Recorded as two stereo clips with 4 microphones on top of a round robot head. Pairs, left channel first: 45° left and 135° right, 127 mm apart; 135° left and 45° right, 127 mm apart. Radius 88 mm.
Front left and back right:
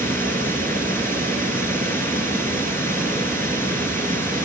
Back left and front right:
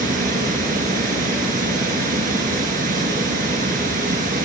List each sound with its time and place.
0.0 s running water: 30° right, 3 m